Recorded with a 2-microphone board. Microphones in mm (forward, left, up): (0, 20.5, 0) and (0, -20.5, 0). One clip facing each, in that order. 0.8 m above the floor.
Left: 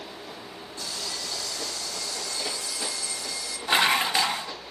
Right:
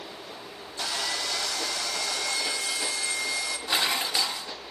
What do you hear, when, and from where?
0.8 s sawing: 75° right (ahead or behind), 1.8 m
3.7 s dishes clattering: 30° left (ahead or behind), 0.7 m